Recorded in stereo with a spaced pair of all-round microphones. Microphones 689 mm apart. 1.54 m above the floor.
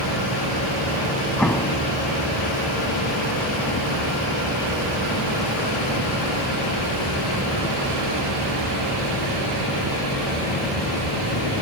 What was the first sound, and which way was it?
An explosion, centre (ahead or behind).